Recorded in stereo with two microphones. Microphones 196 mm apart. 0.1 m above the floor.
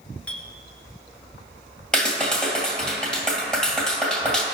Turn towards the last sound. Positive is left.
turn(degrees=0)  # may be behind; listen again after turning